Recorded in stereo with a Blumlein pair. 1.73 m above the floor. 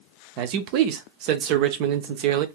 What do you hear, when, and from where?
0.4 s a man speaking: 45° right, 0.7 m